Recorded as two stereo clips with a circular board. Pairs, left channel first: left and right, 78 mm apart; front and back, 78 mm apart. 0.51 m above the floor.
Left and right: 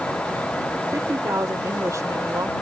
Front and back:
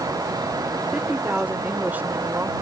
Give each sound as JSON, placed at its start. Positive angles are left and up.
{"t": 0.9, "sound": "a woman speaking", "azimuth_deg": -105}